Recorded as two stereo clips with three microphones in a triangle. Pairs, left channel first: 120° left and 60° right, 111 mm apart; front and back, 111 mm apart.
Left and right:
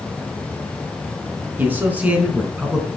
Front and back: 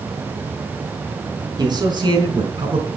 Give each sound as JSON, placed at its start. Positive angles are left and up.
{"t": 1.6, "sound": "a man speaking", "azimuth_deg": -130, "distance_m": 4.0}